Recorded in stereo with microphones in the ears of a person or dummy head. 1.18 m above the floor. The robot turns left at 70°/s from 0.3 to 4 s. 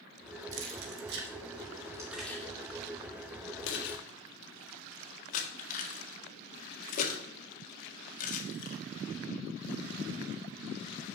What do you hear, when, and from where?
0.5 s keys jangling: 60° right (ahead or behind), 1.7 m; by 8.8 s 55° left (ahead or behind), 1.7 m